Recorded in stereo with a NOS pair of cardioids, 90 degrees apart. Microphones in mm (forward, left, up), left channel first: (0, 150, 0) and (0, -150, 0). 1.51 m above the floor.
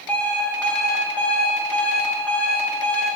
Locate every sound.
0.1 s an alarm clock: 5° left, 2.0 m